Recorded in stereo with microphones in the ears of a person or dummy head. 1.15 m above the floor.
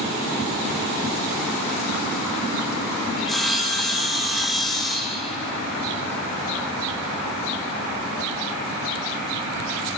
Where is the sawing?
5° left (ahead or behind), 0.8 m.